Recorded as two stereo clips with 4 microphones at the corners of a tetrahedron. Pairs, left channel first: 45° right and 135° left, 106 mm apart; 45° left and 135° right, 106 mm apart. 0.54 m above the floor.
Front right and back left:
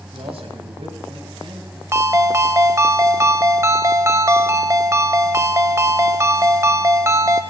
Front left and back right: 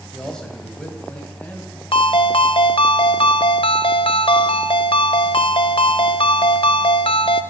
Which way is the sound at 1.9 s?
75° left.